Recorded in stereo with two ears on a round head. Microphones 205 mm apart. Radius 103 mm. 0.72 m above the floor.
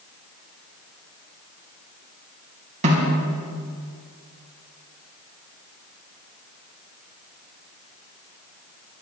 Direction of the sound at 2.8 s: 30° right (ahead or behind).